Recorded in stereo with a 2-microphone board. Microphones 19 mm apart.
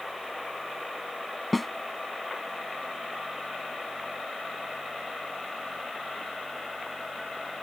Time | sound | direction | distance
1.5 | a snare drum | 5° left (ahead or behind) | ?